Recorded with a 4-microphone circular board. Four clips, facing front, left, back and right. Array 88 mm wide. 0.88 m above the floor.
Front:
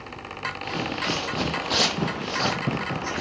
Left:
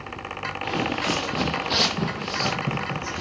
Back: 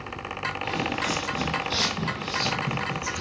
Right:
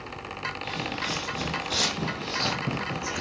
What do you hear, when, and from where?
0.6 s footsteps: 75° left, 1.3 m; by 3.2 s 5° right, 1.8 m